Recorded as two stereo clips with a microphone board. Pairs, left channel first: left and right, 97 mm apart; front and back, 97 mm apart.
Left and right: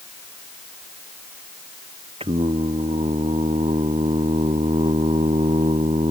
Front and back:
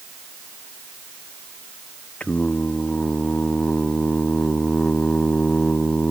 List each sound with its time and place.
2.2 s singing: 80° right